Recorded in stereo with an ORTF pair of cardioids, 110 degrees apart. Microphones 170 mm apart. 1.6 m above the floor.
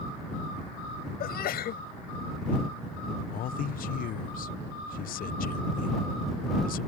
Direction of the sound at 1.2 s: 65° left.